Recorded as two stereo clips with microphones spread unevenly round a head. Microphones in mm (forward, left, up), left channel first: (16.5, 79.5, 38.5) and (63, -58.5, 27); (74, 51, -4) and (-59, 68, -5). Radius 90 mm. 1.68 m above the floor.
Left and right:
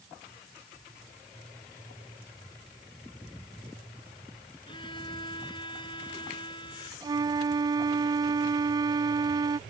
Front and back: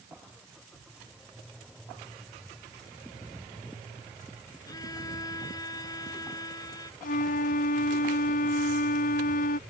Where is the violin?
55° left.